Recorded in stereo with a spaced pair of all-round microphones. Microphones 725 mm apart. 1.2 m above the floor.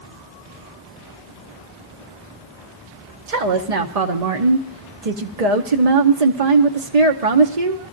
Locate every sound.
3.3 s a woman speaking: 60° right (ahead or behind), 0.9 m